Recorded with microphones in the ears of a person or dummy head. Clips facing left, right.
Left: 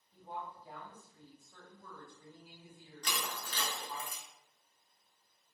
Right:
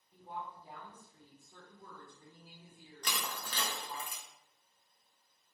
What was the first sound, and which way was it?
A woman speaking, 15° right (ahead or behind).